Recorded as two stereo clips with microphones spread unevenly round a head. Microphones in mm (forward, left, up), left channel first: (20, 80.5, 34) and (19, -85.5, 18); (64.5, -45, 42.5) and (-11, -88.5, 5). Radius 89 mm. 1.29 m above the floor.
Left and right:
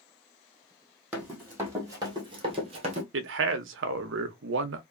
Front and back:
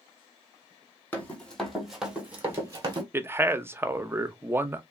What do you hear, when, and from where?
1.1 s running footsteps: 5° right, 1.8 m; by 3.0 s 105° right, 1.4 m
3.1 s a man speaking: 85° right, 0.7 m